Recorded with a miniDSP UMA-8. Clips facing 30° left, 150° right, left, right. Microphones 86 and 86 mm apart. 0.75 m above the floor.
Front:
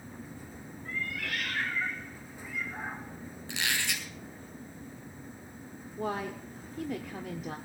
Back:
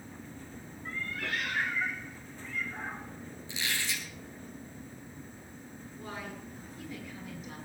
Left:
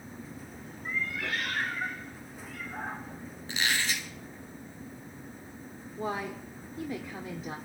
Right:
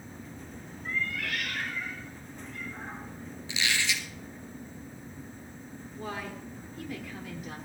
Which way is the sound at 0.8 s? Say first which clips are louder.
Even, even; 170° left.